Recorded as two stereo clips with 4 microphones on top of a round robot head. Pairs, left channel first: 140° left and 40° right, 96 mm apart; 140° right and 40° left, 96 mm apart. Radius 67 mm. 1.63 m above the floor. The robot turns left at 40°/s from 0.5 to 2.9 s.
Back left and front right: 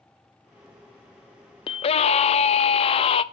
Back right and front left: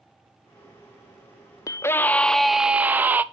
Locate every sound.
1.7 s a scream: 165° left, 0.6 m; by 3.2 s 115° left, 0.6 m